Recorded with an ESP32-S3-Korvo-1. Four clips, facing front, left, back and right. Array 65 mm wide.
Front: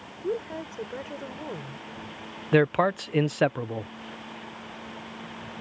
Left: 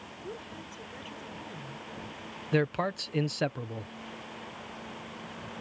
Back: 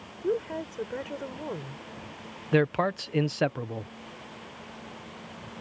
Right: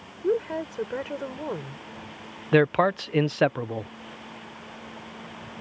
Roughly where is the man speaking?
Ahead right.